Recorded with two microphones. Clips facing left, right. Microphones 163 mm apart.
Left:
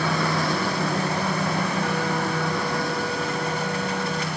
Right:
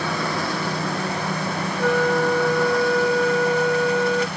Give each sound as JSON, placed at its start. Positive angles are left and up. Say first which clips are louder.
{"t": 1.8, "sound": "a flute", "louder": "right 6 dB", "side_deg": -75}